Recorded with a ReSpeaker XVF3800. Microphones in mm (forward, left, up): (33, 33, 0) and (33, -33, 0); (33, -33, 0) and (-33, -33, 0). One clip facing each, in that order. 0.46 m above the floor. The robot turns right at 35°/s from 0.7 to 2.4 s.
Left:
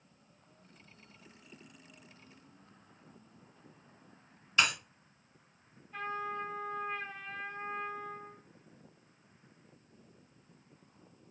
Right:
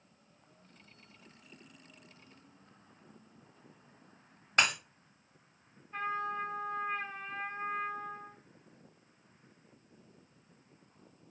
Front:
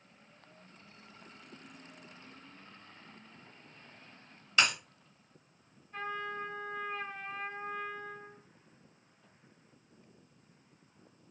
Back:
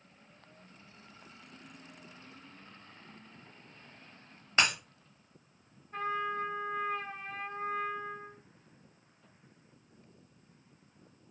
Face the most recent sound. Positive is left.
turn(degrees=-145)